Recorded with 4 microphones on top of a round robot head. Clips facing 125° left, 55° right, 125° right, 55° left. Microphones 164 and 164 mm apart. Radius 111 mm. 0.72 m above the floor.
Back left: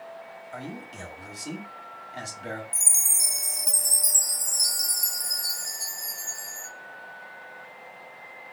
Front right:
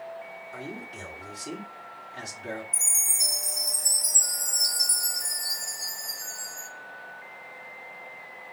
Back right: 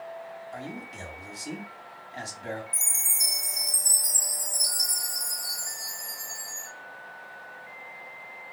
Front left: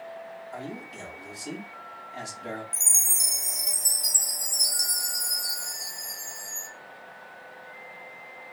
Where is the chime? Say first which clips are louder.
Even, even; 110° left, 2.5 m.